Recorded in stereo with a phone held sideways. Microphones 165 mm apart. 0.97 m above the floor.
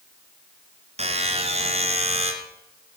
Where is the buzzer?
40° right (ahead or behind), 3 m.